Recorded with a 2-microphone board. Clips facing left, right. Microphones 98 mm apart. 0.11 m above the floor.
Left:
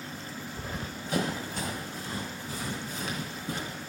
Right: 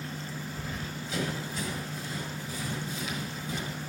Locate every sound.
0.6 s running footsteps: 35° left (ahead or behind), 0.8 m; by 3.8 s 60° left (ahead or behind), 5.5 m